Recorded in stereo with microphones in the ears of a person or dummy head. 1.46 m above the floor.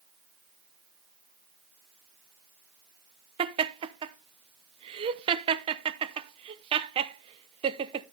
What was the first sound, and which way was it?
Laughter, 30° right (ahead or behind).